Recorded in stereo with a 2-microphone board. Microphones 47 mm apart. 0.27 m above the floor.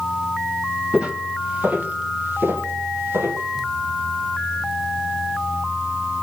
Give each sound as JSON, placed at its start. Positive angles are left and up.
{"t": 0.9, "sound": "footsteps", "side_deg": -20, "distance_m": 2.0}